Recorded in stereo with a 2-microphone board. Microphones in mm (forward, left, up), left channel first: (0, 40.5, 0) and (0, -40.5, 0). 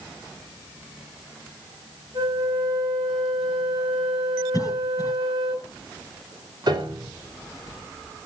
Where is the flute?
75° right (ahead or behind), 8.5 m.